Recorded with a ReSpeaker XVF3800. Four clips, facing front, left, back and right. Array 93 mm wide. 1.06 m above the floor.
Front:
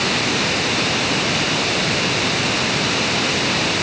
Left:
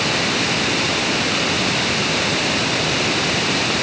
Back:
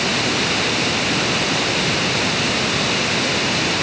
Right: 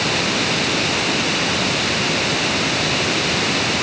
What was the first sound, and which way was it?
Only background noise.